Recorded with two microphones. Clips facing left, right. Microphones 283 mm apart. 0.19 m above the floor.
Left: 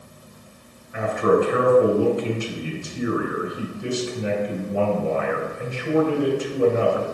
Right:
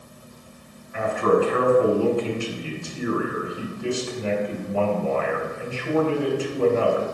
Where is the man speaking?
20° left (ahead or behind), 2.5 m.